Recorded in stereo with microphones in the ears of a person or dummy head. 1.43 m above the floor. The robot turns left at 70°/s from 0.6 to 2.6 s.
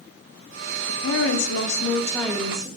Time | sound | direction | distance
0.9 | a woman speaking | 100° left | 0.5 m